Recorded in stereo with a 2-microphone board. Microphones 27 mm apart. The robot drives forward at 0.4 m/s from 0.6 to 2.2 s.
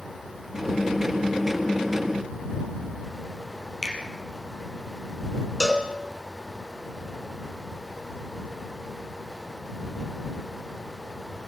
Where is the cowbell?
5° left (ahead or behind), 1.6 m.